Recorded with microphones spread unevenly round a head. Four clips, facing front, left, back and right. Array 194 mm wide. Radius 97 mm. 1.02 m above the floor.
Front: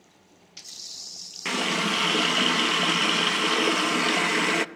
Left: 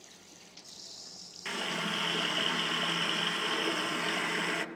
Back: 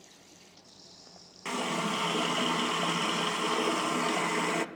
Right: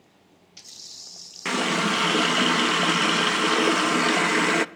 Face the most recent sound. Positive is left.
turn(degrees=-60)